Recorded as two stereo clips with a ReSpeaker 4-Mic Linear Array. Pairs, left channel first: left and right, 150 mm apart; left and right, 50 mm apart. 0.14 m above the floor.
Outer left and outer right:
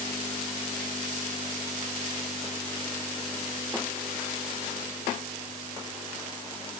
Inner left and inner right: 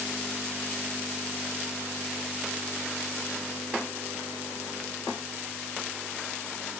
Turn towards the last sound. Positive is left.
No sound to turn to.